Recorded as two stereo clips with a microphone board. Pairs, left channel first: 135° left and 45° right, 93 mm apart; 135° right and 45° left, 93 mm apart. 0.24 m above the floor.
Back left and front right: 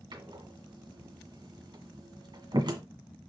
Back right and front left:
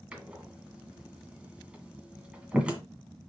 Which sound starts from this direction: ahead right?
A door slam, at 0.1 s.